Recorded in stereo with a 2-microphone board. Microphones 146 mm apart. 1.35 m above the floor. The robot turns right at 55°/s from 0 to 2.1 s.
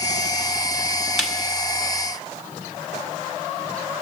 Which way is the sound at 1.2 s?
Centre (ahead or behind).